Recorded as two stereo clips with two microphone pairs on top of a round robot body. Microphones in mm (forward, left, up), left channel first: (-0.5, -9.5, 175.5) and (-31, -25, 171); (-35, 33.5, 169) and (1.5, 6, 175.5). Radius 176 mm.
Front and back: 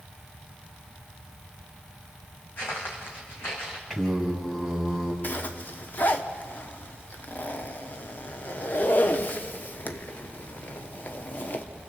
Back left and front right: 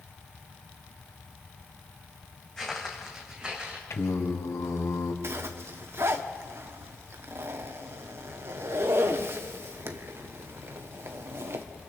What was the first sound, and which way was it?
Footsteps, 60° left.